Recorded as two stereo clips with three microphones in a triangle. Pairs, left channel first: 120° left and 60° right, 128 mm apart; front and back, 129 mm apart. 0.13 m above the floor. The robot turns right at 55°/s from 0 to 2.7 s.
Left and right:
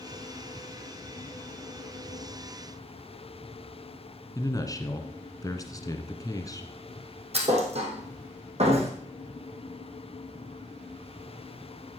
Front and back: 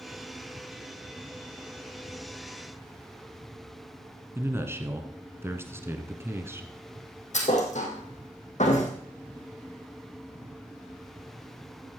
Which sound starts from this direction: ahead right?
A thud, at 7.3 s.